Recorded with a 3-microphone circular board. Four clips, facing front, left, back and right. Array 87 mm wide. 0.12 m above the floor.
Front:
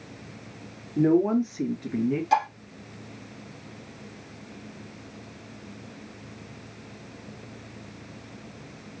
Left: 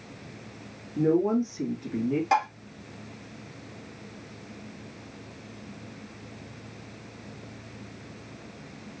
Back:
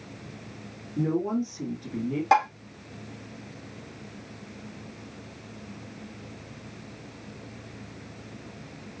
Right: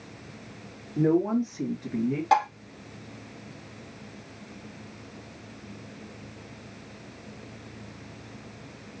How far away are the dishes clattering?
About 3 m.